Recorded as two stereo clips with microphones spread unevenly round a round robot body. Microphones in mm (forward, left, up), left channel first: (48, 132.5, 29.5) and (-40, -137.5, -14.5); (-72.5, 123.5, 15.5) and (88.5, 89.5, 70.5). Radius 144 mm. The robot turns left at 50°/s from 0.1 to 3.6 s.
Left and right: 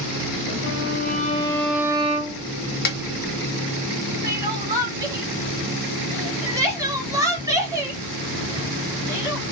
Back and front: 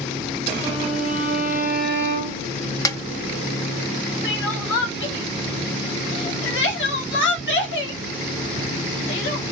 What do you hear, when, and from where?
0.6 s a violin: 40° left, 0.9 m; by 2.5 s 50° right, 0.9 m
2.9 s a snare drum: 130° left, 0.9 m; by 3.0 s 120° left, 0.9 m
4.2 s crying: 170° left, 1.3 m